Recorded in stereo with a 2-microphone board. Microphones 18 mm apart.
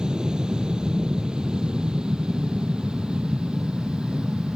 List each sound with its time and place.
0.0 s an aircraft: 55° right (ahead or behind); by 4.6 s 65° right (ahead or behind)